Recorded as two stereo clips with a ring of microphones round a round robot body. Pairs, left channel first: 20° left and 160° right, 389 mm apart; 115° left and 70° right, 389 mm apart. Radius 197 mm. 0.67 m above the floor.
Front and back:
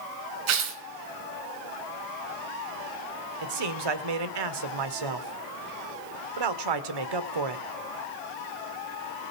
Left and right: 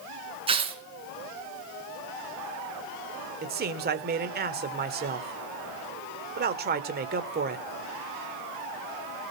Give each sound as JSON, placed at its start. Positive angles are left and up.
{"t": 0.5, "sound": "tearing paper", "azimuth_deg": -145, "distance_m": 3.0}
{"t": 3.4, "sound": "a man speaking", "azimuth_deg": -135, "distance_m": 1.9}